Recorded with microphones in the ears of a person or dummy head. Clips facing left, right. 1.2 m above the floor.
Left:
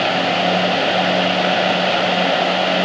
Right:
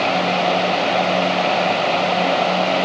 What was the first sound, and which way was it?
Only background noise.